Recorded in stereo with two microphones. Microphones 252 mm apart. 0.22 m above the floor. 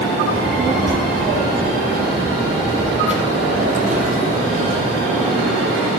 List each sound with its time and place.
0.3 s a child speaking: 15° right (ahead or behind), 6.5 m; by 5.0 s 35° right (ahead or behind), 5 m